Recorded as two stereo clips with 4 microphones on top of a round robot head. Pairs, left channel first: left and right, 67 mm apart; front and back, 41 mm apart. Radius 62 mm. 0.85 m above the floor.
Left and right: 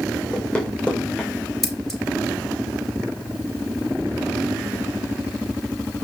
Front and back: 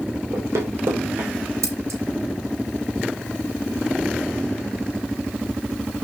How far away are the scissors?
About 2.5 m.